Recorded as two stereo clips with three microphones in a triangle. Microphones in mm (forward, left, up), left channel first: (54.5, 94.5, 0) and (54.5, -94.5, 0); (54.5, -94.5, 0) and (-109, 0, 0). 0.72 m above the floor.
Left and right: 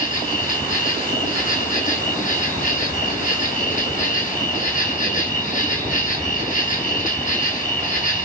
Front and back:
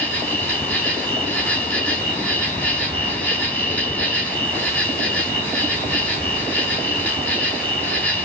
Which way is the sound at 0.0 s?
50° left.